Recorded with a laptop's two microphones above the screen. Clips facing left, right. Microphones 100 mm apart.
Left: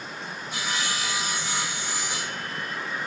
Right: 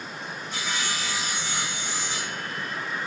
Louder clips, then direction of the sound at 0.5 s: Left 1 dB; 10° left (ahead or behind).